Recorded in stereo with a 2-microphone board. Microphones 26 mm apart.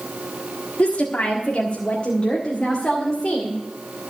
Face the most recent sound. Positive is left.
turn(degrees=35)  # may be behind; listen again after turning